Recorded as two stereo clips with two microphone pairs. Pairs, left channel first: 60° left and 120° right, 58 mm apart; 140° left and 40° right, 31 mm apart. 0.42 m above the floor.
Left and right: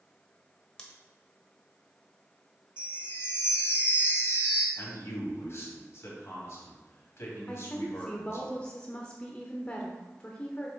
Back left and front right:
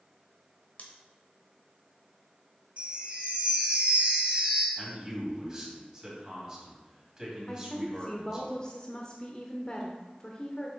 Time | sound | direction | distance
0.8 | scissors | 135° left | 1.4 m
2.8 | a chime | 15° left | 1.6 m
4.8 | a man speaking | 25° left | 3 m
7.5 | a woman speaking | 110° left | 0.8 m